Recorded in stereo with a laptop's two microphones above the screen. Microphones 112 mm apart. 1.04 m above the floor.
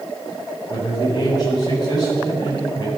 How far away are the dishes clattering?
No dishes clattering in this recording.